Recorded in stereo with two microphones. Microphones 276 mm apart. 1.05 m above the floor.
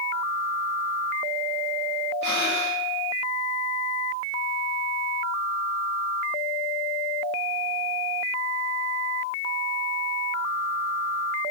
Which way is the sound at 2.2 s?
85° left.